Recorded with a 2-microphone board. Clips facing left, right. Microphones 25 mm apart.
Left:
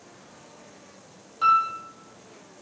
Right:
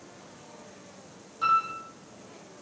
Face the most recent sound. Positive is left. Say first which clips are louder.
# left 4 dB
turn(degrees=25)  # may be behind; listen again after turning